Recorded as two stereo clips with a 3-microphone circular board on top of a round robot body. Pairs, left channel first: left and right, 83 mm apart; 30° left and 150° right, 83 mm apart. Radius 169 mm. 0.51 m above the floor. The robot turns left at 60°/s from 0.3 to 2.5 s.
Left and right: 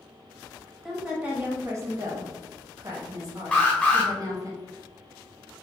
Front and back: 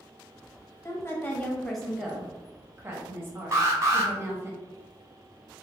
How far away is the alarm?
About 1.1 m.